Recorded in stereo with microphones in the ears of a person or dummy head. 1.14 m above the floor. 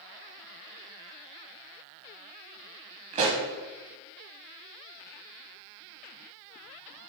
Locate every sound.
3.1 s a pop: 25° right (ahead or behind), 1.1 m